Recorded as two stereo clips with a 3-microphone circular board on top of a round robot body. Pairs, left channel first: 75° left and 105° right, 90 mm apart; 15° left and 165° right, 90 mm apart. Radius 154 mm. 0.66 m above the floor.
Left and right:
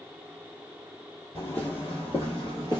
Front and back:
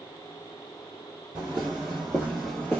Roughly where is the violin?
I don't hear a violin.